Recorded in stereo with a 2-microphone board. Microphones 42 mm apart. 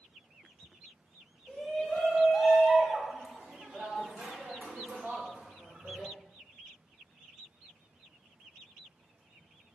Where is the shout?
20° left (ahead or behind), 1.4 m; by 6.1 s 45° right (ahead or behind), 2.5 m.